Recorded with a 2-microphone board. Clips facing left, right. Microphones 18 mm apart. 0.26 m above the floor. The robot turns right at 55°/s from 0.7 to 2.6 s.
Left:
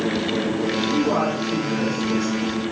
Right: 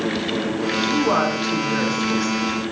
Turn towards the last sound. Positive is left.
turn(degrees=5)